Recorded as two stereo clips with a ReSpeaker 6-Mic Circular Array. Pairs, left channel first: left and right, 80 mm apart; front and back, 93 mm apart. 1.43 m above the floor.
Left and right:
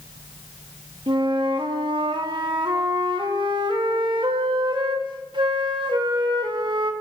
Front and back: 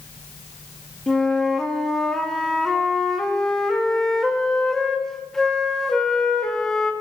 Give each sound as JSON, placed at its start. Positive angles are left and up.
{"t": 1.1, "sound": "a flute", "azimuth_deg": -85, "distance_m": 1.5}